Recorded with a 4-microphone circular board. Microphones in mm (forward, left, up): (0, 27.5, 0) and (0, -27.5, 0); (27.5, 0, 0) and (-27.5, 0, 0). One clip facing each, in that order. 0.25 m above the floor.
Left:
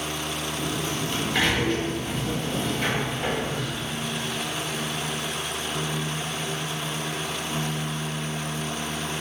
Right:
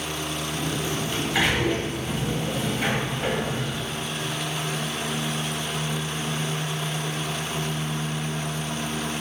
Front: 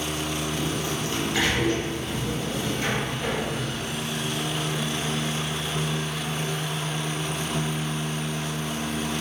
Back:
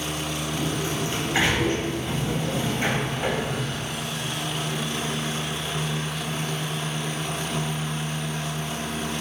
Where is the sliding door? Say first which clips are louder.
Right 2 dB, back 1 dB; 165° right, 0.8 m.